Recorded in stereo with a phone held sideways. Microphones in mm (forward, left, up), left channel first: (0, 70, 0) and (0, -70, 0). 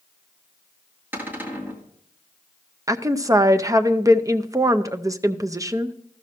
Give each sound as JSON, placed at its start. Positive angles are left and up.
{"t": 1.1, "sound": "a cupboard door", "side_deg": -15, "distance_m": 1.6}
{"t": 2.9, "sound": "a woman speaking", "side_deg": -25, "distance_m": 0.5}